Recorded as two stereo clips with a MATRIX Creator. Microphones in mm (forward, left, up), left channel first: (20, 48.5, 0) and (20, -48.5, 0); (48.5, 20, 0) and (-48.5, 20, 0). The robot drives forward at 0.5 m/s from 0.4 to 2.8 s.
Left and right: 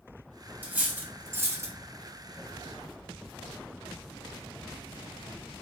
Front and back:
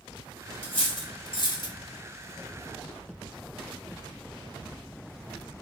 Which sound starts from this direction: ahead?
Cutlery clinking, at 0.6 s.